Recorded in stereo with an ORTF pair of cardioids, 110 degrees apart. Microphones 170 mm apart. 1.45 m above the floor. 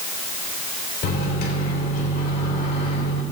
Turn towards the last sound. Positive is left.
turn(degrees=60)